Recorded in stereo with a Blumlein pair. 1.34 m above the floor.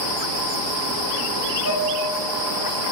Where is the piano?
65° right, 1.3 m.